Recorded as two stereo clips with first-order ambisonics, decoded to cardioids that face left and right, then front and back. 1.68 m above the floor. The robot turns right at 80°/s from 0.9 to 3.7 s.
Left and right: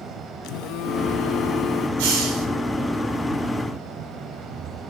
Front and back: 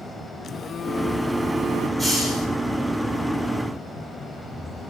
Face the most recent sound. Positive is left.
turn(degrees=50)